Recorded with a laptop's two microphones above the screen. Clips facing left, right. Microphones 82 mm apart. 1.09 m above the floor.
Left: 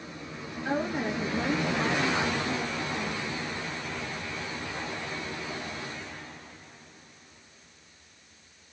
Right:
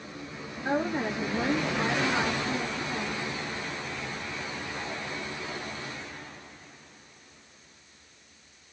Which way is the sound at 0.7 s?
10° right (ahead or behind).